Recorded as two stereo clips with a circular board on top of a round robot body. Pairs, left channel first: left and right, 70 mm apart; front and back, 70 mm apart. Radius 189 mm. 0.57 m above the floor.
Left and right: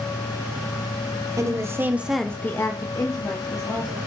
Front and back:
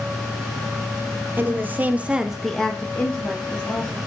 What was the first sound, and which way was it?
A woman speaking, 120° right.